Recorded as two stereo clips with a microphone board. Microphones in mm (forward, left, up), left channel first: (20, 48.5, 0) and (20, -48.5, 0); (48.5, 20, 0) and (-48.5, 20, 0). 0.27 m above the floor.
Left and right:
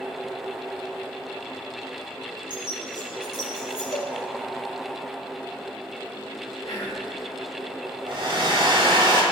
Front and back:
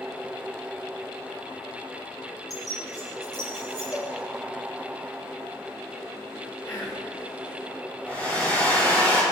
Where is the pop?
I don't hear a pop.